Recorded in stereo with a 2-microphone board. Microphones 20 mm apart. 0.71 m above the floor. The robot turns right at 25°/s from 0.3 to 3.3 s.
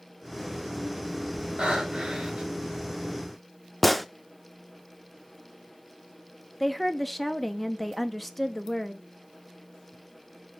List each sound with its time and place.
1.6 s breathing: 75° right (ahead or behind), 4 m; by 2.5 s 55° right (ahead or behind), 4 m
3.8 s a gunshot: 10° left (ahead or behind), 0.5 m
6.6 s a woman speaking: 15° left (ahead or behind), 0.8 m